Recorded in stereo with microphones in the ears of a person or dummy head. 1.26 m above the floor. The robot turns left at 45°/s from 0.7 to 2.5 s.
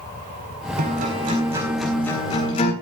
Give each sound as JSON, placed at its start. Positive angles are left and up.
{"t": 0.8, "sound": "a guitar", "azimuth_deg": -135, "distance_m": 4.5}